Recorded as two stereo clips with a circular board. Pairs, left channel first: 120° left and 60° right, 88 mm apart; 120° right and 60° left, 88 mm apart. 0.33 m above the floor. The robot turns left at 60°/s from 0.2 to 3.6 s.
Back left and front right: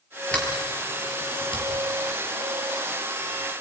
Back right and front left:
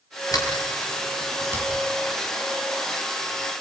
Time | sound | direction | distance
0.3 | a sliding door | 160° right | 5.5 m